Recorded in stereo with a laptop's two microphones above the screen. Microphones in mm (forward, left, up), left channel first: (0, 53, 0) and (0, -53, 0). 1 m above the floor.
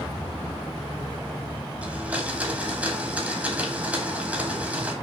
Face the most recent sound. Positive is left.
turn(degrees=-15)  # may be behind; listen again after turning